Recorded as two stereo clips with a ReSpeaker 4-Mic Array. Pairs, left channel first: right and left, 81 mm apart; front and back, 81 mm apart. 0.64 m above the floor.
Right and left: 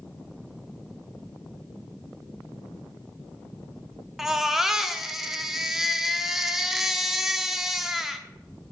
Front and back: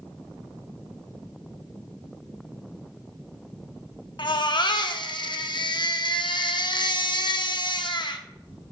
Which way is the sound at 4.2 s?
5° left.